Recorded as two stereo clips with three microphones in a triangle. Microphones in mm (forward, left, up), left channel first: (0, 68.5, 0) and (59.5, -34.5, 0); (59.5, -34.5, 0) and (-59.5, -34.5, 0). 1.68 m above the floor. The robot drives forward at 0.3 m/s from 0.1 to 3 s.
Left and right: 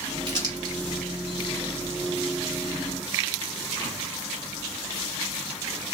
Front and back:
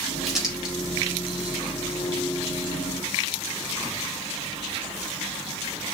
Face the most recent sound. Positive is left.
turn(degrees=-120)